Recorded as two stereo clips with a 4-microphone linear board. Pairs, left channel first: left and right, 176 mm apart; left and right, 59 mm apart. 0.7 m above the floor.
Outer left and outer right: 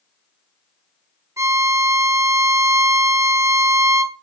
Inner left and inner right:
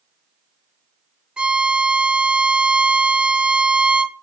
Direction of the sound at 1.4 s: 20° right (ahead or behind).